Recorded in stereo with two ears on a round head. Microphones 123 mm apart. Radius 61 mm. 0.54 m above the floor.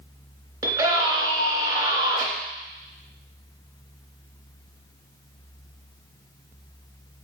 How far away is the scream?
About 3 m.